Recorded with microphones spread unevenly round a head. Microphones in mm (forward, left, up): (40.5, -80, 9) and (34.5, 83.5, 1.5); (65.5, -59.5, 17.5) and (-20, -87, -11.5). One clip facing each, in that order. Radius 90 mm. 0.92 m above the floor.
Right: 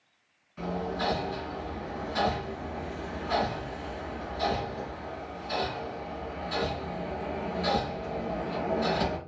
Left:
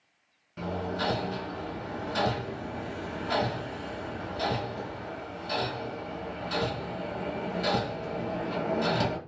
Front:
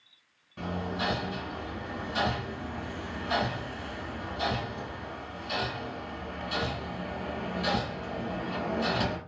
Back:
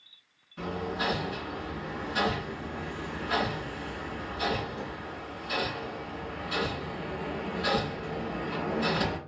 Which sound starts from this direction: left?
Hammering, at 0.6 s.